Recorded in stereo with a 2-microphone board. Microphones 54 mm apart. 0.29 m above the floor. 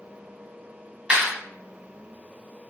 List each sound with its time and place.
1.1 s a clap: 20° right (ahead or behind), 2.0 m